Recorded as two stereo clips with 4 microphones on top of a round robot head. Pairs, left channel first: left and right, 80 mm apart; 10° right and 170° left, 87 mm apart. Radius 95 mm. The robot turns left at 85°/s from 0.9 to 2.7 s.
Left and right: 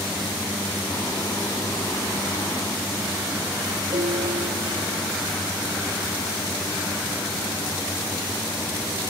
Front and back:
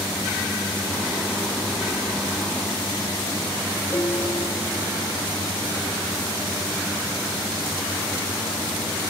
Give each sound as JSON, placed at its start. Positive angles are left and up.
{"t": 3.9, "sound": "a piano", "azimuth_deg": -75}